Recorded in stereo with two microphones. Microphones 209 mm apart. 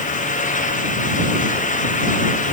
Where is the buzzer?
No buzzer in this recording.